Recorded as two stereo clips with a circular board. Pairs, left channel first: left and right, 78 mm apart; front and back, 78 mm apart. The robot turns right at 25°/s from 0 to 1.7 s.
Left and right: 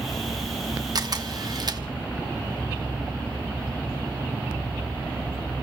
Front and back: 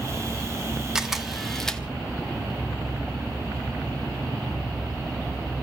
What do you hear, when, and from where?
0.9 s a camera shutter: 100° right, 1.0 m; by 1.8 s 85° right, 1.0 m